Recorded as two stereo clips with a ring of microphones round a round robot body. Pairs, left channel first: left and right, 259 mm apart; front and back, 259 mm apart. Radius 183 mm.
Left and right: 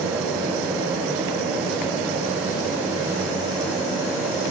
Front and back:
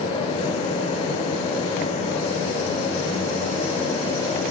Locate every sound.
Only background noise.